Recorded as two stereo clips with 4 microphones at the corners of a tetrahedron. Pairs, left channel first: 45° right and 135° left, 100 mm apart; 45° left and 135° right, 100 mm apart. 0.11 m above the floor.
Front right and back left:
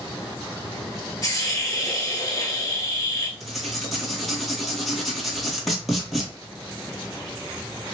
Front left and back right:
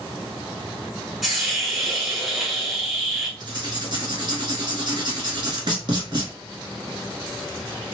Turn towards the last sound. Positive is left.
turn(degrees=-135)